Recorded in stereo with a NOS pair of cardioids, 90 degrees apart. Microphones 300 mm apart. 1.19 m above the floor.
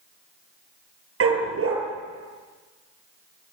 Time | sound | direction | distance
1.2 | a dog barking | 45° right | 8.5 m